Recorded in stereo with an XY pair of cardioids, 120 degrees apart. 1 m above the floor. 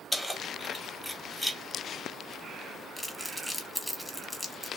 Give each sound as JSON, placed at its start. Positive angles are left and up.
{"t": 0.1, "sound": "keys jangling", "azimuth_deg": 5, "distance_m": 0.9}
{"t": 3.0, "sound": "crumpling", "azimuth_deg": 5, "distance_m": 0.9}